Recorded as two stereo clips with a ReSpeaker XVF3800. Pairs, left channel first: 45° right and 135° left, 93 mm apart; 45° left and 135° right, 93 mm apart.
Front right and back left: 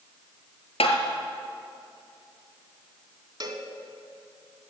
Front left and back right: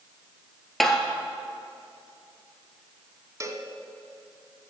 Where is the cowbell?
175° left, 1.1 m.